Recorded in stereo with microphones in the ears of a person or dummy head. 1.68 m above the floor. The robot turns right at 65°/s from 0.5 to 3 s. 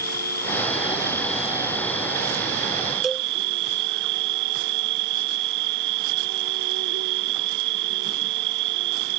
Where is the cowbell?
Centre (ahead or behind).